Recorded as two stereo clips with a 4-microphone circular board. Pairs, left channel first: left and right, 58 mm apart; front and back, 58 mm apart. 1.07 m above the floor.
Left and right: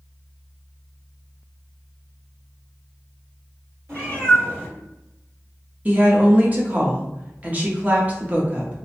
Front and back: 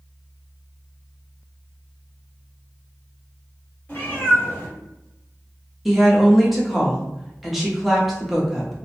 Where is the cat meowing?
50° right, 1.7 m.